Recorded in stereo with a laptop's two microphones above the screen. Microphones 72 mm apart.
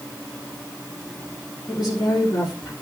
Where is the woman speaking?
75° left (ahead or behind), 3.5 m.